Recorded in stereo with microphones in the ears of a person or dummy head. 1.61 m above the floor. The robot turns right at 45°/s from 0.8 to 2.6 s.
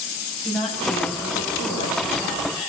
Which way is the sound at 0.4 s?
Straight ahead.